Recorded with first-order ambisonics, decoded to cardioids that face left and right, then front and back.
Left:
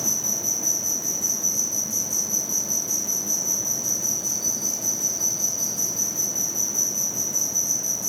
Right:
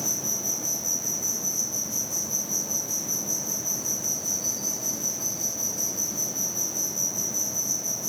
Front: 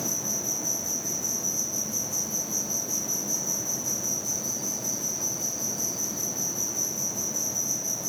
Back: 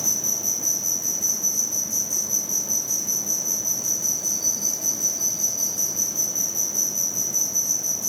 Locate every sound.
0.0 s an insect: 160° left, 3 m